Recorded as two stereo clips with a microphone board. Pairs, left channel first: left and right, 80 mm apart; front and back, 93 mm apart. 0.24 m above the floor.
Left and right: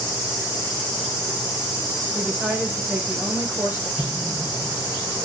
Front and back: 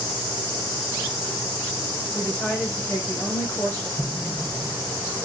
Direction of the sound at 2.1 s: 45° right.